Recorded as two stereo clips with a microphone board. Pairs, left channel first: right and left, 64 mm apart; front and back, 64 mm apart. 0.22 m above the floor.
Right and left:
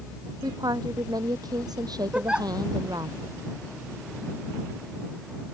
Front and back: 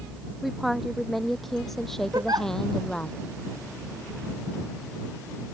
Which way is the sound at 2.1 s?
165° left.